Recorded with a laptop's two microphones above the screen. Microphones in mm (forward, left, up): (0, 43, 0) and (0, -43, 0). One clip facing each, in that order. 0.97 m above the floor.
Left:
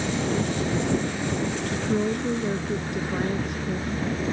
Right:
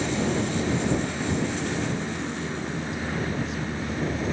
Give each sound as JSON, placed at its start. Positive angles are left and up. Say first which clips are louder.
{"t": 1.7, "sound": "a woman speaking", "louder": "left 4 dB", "side_deg": 55}